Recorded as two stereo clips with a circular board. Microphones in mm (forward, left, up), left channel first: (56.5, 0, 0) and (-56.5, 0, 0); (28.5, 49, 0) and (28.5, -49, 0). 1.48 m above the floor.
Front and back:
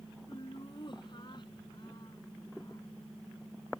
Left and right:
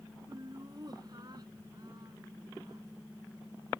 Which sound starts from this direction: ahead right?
Laughter, at 0.3 s.